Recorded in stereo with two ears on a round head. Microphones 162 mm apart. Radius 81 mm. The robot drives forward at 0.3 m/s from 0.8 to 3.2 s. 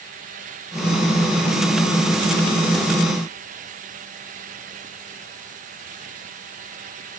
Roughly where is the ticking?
I don't hear ticking.